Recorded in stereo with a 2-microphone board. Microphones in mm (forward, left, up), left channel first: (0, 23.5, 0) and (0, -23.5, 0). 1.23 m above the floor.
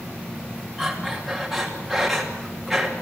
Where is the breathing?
Centre (ahead or behind), 3 m.